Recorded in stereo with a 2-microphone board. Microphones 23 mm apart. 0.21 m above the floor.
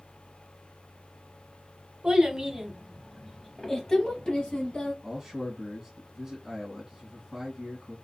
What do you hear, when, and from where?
2.0 s a child speaking: 40° right (ahead or behind), 0.9 m; by 4.9 s 45° left (ahead or behind), 1.1 m
5.0 s a man speaking: 20° right (ahead or behind), 1.4 m